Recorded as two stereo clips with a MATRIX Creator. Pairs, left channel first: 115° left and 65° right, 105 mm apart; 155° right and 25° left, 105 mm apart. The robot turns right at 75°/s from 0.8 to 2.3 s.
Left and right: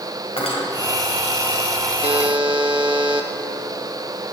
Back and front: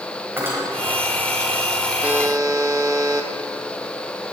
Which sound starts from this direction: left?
Cutlery clinking, at 0.4 s.